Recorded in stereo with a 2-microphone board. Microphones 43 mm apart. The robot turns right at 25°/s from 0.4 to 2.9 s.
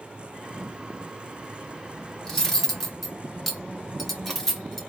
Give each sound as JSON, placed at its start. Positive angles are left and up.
{"t": 2.2, "sound": "cutlery clinking", "side_deg": 15, "distance_m": 0.8}